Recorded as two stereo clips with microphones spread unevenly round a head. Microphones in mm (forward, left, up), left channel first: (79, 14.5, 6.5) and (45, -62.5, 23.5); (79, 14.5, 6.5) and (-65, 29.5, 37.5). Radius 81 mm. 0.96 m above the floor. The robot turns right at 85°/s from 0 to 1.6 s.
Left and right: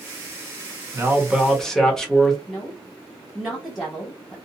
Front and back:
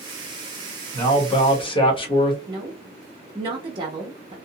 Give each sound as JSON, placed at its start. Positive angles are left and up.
{"t": 0.9, "sound": "a man speaking", "azimuth_deg": -60, "distance_m": 1.0}
{"t": 2.5, "sound": "a woman speaking", "azimuth_deg": 125, "distance_m": 0.8}